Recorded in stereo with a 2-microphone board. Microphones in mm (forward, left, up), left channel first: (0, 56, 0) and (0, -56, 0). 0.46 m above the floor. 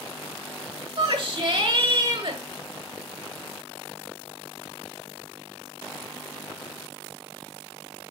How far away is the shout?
About 1.5 m.